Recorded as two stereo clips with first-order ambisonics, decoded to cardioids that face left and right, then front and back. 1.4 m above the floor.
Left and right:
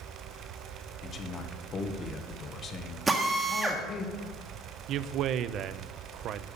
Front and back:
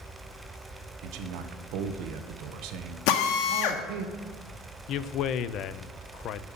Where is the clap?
I don't hear a clap.